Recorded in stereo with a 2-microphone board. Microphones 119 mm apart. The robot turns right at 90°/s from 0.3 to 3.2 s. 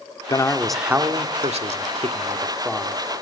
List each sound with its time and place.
0.3 s a man speaking: 140° left, 1.6 m; by 3.0 s 25° left, 1.6 m